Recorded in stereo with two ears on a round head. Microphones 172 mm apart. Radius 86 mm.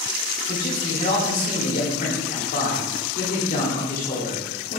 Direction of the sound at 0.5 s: 45° left (ahead or behind).